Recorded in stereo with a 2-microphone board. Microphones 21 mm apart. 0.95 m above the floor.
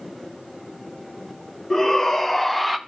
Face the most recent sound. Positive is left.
turn(degrees=-5)  # may be behind; listen again after turning